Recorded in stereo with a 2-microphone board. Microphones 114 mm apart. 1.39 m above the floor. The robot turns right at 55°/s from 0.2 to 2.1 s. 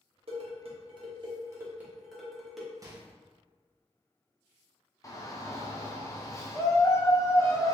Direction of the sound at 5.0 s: 30° left (ahead or behind).